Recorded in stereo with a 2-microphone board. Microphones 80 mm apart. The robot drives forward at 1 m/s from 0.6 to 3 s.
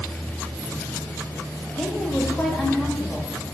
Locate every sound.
1.8 s a woman speaking: 5° left (ahead or behind), 4 m